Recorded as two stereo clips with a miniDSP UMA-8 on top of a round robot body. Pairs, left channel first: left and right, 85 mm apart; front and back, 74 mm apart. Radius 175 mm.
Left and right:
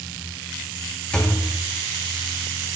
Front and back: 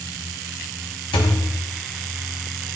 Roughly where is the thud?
Ahead.